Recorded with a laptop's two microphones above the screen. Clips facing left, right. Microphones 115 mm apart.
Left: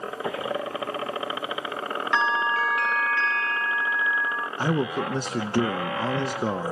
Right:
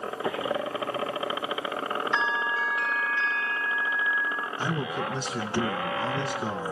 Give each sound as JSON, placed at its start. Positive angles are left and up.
{"t": 2.1, "sound": "a bell", "side_deg": 65, "distance_m": 0.6}
{"t": 4.6, "sound": "a man speaking", "side_deg": 50, "distance_m": 0.7}